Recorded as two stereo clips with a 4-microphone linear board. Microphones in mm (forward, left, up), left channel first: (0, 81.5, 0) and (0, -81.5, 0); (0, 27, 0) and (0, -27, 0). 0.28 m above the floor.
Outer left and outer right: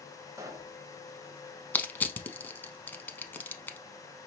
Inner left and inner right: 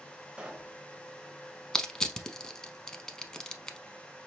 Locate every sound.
0.4 s a pop: 20° right (ahead or behind), 0.8 m
1.7 s crushing: 10° left (ahead or behind), 0.6 m